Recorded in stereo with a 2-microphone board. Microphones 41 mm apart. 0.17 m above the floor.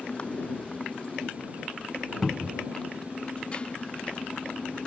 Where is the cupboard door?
5° right (ahead or behind).